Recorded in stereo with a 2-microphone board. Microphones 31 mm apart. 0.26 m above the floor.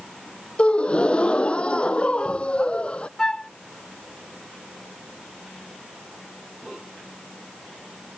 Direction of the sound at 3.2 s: 20° left (ahead or behind).